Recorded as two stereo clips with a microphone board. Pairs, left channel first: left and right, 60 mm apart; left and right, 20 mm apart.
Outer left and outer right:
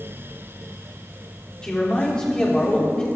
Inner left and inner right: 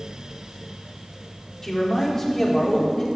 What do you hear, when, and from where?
1.6 s a man speaking: 15° left (ahead or behind), 3.5 m